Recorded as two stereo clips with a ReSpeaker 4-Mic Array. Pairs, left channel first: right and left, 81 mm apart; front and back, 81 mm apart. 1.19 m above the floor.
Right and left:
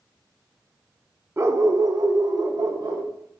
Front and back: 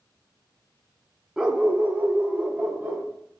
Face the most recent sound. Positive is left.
turn(degrees=120)